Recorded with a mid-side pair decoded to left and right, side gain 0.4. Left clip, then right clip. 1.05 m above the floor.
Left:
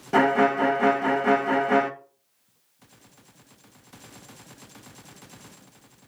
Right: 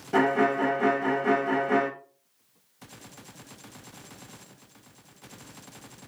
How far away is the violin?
About 0.6 m.